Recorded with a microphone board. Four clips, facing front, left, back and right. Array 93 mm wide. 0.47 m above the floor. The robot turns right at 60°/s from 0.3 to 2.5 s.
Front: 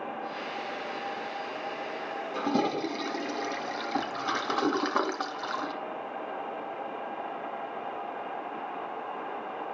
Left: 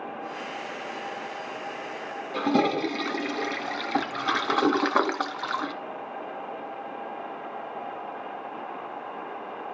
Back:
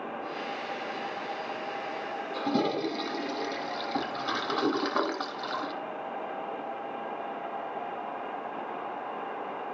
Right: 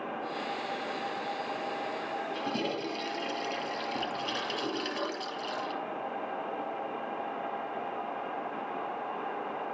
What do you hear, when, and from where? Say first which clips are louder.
2.3 s a toilet flushing: left 14 dB, even; 75° left, 1.2 m; by 5.7 s 85° left, 1.2 m